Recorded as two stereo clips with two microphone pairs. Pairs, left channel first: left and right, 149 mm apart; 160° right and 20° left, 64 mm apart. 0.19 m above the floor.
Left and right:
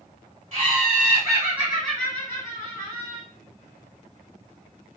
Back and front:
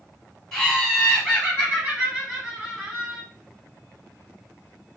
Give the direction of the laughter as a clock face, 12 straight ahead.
2 o'clock.